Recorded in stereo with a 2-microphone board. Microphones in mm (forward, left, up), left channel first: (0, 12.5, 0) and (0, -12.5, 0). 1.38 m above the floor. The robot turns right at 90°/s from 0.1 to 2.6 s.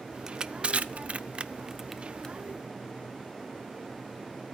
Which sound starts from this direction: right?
Crushing, at 0.3 s.